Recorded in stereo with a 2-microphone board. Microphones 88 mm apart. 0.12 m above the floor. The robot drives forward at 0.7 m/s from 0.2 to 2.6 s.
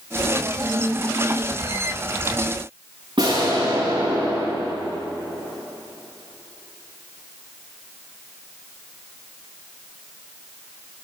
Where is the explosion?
65° right (ahead or behind), 6.5 m.